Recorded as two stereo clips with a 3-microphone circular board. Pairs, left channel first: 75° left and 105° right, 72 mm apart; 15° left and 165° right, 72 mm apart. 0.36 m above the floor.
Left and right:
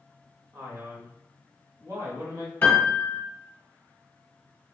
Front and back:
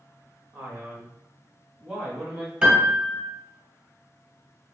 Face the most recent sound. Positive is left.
turn(degrees=130)